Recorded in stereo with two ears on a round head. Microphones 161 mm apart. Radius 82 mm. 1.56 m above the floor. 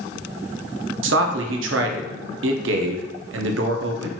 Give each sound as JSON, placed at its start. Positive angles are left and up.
{"t": 1.0, "sound": "a man speaking", "side_deg": -70, "distance_m": 0.7}